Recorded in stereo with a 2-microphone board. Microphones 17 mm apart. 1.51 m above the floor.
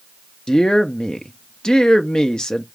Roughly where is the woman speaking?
Left.